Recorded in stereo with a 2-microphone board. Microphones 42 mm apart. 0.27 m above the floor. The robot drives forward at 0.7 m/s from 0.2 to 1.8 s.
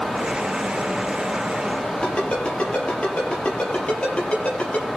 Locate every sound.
2.0 s a ringtone: 30° left (ahead or behind), 4.5 m